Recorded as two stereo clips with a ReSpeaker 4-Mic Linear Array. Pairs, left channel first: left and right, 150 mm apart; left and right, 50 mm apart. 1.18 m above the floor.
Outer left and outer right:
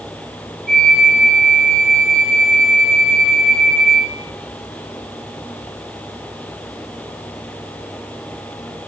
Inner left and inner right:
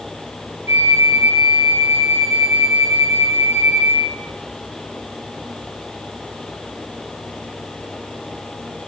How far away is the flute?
About 2.5 m.